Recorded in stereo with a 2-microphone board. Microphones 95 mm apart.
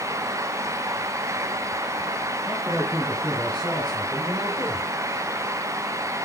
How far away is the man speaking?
About 7 m.